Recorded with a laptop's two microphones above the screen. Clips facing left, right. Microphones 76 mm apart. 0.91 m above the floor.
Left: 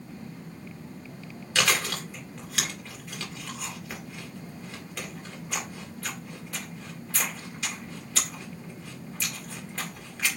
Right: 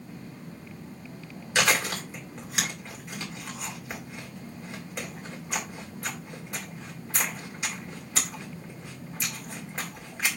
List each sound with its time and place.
1.6 s chewing: 20° right (ahead or behind), 2.0 m